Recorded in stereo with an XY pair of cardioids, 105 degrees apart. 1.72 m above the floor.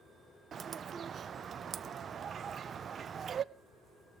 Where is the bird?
45° right, 0.5 m.